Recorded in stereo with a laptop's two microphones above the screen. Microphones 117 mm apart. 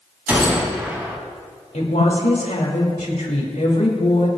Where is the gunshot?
15° right (ahead or behind), 3.5 m.